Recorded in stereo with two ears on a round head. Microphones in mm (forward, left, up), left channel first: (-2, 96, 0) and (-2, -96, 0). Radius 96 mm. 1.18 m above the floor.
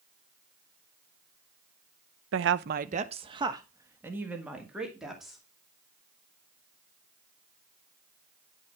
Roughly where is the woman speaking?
Right.